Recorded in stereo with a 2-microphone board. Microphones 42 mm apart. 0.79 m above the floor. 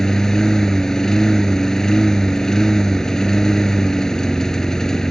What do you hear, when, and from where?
0.0 s a lawn mower: 10° left (ahead or behind)